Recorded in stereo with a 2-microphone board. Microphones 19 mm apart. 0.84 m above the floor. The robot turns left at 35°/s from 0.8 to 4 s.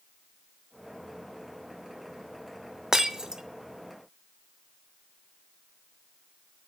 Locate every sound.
2.9 s breaking glass: 35° right (ahead or behind), 0.7 m; by 3.4 s 45° right (ahead or behind), 0.7 m